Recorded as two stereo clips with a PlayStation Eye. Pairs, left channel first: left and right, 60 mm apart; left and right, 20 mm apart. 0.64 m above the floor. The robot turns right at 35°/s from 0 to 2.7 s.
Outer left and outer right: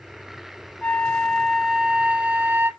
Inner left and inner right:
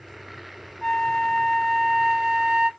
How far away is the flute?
About 1.2 m.